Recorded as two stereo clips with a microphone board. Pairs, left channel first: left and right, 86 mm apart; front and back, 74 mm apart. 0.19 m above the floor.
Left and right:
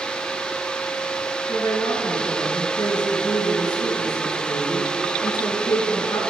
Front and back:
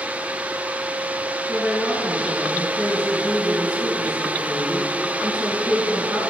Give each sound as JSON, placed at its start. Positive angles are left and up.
{"t": 1.5, "sound": "a woman speaking", "azimuth_deg": 110, "distance_m": 2.0}